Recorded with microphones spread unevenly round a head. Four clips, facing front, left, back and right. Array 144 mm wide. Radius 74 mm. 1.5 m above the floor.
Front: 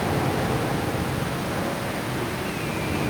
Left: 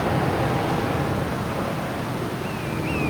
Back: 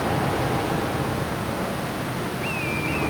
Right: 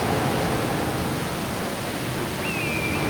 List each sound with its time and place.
Only background noise.